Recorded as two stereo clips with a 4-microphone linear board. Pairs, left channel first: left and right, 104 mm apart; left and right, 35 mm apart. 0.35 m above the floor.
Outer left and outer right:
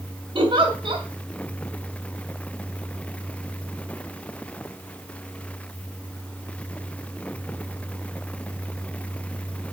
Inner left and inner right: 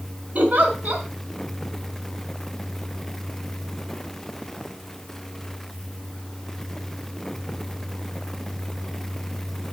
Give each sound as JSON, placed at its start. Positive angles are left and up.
{"t": 0.3, "sound": "a giggle", "side_deg": -55, "distance_m": 2.5}